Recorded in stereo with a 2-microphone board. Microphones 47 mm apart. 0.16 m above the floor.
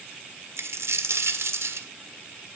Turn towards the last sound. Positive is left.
turn(degrees=-70)  # may be behind; listen again after turning